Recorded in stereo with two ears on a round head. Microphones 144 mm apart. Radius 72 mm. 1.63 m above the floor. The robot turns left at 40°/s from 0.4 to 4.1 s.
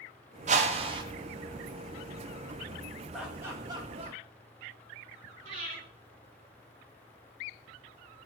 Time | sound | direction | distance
0.5 | a whoosh | 50° right (ahead or behind) | 2 m
3.1 | laughter | centre (ahead or behind) | 5 m
5.5 | breathing | 45° right (ahead or behind) | 7.5 m